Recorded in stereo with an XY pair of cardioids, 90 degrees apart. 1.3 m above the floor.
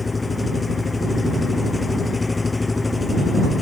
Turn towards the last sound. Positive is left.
turn(degrees=25)